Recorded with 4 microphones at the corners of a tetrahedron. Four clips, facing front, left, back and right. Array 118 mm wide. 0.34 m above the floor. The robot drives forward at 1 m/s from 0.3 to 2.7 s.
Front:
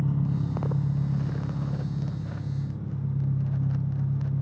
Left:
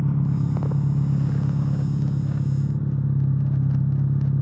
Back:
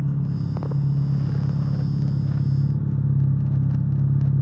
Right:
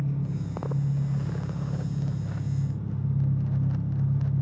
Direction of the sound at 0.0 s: 85° left.